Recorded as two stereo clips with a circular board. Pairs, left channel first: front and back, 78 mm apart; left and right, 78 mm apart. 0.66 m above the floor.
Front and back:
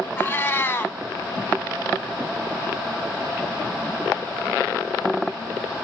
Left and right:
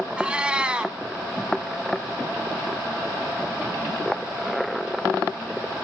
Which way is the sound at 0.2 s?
25° right.